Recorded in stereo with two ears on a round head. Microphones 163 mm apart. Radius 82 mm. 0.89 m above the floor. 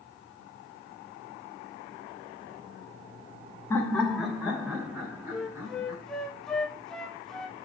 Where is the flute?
5° left (ahead or behind), 0.8 m.